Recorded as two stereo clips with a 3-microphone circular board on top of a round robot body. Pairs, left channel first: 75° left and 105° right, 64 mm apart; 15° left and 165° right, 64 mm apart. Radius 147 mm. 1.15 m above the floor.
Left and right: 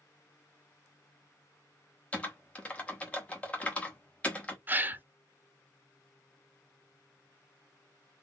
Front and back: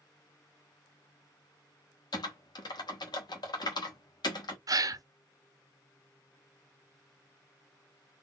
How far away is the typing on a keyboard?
About 1.1 m.